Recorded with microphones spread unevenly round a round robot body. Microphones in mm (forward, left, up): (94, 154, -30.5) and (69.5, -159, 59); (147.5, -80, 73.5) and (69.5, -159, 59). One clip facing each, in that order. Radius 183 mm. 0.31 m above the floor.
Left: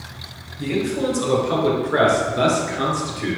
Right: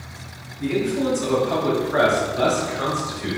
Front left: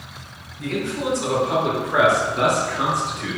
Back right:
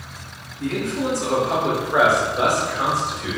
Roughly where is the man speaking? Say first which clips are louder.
Even, back right 1 dB; left.